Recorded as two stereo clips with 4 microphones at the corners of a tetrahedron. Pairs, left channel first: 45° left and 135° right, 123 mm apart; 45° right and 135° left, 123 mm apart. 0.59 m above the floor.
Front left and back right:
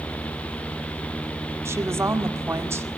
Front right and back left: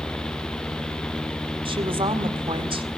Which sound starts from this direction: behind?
A woman speaking, at 1.6 s.